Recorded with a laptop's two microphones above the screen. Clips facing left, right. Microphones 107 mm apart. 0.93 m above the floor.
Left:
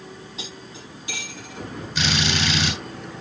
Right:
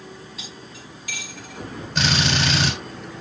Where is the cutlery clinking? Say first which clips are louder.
Left 2 dB; 25° left (ahead or behind), 4 m.